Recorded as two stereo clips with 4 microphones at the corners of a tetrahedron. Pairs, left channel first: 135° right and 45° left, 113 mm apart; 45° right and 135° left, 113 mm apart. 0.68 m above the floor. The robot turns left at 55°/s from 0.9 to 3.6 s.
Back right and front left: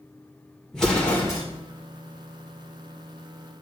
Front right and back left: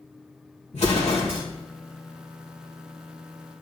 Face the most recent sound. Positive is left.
turn(degrees=160)